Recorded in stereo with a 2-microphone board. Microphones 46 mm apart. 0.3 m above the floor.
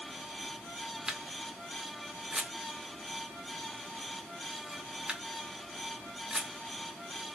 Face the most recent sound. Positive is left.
turn(degrees=-15)  # may be behind; listen again after turning